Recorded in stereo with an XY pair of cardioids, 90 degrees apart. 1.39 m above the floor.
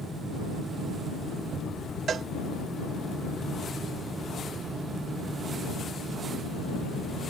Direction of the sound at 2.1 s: 60° right.